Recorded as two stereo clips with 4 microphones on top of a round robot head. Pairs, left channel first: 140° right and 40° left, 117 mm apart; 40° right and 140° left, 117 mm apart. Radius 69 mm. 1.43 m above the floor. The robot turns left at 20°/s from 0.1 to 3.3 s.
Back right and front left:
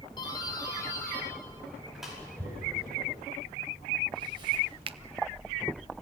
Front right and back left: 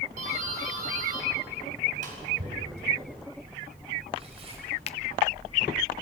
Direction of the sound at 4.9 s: 5° right.